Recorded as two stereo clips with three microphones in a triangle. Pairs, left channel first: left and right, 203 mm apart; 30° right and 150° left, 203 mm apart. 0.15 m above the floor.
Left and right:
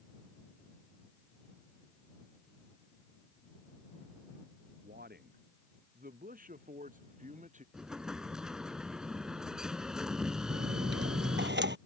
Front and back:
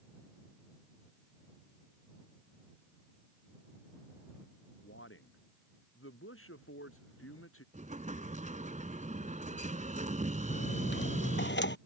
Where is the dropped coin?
60° right.